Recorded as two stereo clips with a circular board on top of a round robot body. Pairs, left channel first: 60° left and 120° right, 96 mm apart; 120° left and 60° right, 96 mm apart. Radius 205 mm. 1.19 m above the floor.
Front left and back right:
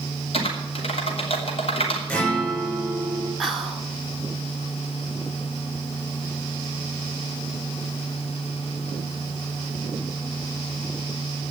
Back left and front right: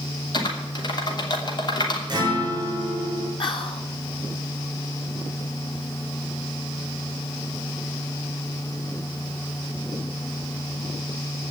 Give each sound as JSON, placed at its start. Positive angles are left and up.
{"t": 0.3, "sound": "typing on a keyboard", "azimuth_deg": 75, "distance_m": 3.0}
{"t": 2.1, "sound": "a guitar", "azimuth_deg": -15, "distance_m": 6.5}
{"t": 3.4, "sound": "whispering", "azimuth_deg": 150, "distance_m": 2.5}